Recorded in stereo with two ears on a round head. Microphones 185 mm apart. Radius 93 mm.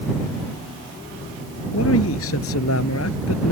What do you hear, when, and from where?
1.7 s a man speaking: 75° left (ahead or behind); by 3.5 s 80° left